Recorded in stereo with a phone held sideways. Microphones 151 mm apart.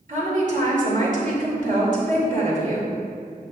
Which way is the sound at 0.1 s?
55° right (ahead or behind).